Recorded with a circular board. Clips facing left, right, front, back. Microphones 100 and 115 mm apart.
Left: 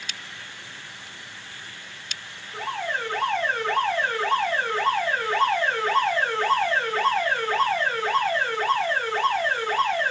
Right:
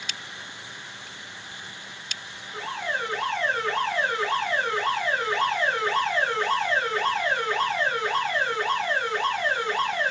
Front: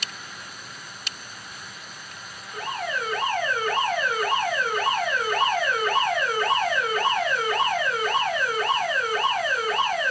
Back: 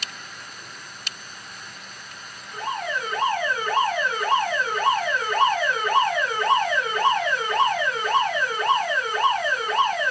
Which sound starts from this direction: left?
An alarm, at 2.5 s.